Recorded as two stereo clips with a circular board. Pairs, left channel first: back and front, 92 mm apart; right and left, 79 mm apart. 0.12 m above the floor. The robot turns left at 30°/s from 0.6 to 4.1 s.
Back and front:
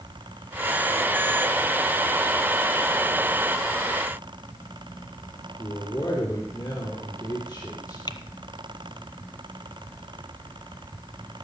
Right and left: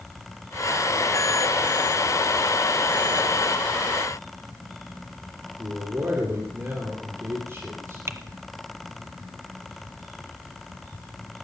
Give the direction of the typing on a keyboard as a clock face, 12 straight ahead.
7 o'clock.